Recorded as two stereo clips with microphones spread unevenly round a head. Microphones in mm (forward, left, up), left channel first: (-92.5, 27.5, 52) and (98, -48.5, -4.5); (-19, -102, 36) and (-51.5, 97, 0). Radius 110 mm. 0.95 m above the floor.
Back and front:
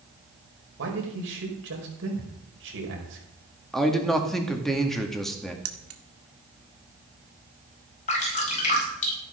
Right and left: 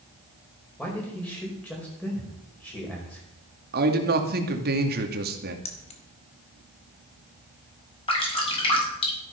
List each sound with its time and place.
0.8 s a man speaking: 5° left, 4.5 m
3.7 s a man speaking: 65° left, 2 m
5.7 s keys jangling: 15° right, 1.6 m
8.1 s dripping: 145° right, 5.5 m